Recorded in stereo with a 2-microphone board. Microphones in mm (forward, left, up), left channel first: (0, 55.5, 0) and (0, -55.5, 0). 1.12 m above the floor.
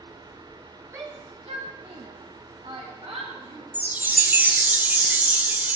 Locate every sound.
0.9 s a shout: 25° right (ahead or behind), 1.0 m; by 3.6 s 65° right (ahead or behind), 4 m
3.7 s a chime: 15° right (ahead or behind), 0.6 m